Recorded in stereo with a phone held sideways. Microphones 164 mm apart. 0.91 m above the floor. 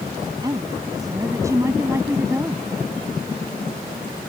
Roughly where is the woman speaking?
Right.